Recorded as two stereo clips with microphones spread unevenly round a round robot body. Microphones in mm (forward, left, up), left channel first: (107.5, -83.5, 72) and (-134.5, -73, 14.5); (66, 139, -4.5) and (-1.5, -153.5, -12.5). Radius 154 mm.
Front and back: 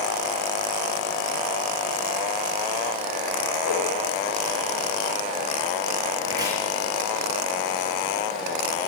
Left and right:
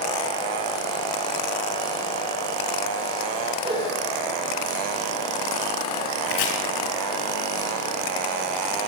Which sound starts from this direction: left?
Chopping, at 6.3 s.